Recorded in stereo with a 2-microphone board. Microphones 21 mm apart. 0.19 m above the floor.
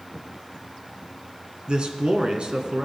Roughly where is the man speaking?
Right.